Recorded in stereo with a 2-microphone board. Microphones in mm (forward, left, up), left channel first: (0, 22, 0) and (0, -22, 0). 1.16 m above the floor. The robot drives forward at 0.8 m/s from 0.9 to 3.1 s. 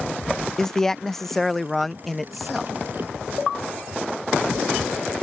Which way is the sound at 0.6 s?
10° left (ahead or behind).